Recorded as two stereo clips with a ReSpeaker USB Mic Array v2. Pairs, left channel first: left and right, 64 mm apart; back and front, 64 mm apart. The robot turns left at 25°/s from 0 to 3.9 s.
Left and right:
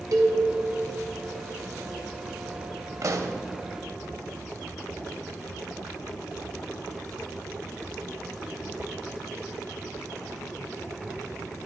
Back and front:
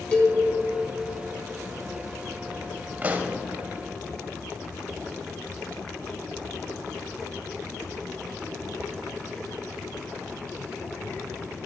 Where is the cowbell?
110° right, 1.4 m; by 0.3 s 115° right, 1.4 m.